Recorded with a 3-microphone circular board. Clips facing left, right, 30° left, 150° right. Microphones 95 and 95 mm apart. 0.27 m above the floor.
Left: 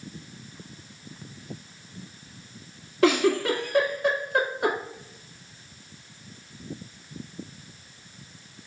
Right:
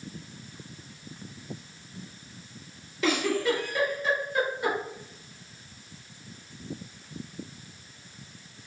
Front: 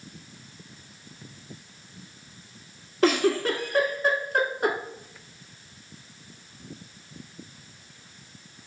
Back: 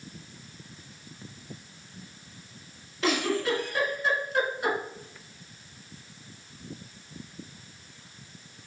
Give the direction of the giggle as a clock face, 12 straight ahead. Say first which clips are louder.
Left 5 dB, front 5 dB; 10 o'clock.